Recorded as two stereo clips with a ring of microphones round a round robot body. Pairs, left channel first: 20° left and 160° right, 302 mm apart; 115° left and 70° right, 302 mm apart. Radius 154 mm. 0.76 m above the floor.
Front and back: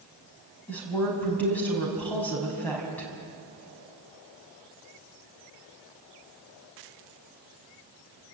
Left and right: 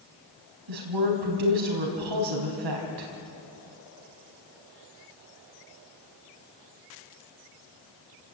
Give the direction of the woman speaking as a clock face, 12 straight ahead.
2 o'clock.